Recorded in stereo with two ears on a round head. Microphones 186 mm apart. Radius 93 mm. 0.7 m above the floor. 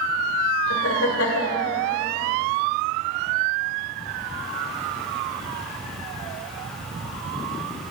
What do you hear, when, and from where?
0.7 s laughter: 70° left (ahead or behind), 2 m